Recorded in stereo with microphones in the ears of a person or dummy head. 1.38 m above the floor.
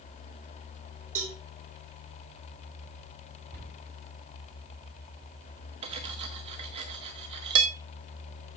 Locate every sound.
1.1 s a cowbell: 80° right, 4 m
3.5 s a cupboard door: 55° right (ahead or behind), 5.5 m
5.8 s cutlery clinking: 25° right (ahead or behind), 0.9 m